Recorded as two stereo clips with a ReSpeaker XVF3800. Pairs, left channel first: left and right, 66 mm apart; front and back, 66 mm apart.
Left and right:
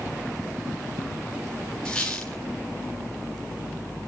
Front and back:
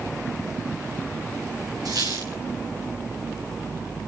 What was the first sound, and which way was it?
A squeak, 170° left.